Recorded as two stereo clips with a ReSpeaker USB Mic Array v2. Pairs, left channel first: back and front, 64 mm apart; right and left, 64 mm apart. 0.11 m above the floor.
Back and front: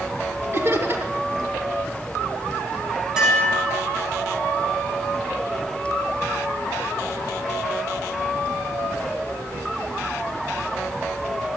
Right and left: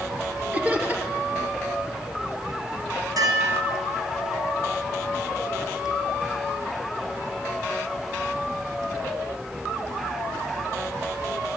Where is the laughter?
35° left, 2.5 m.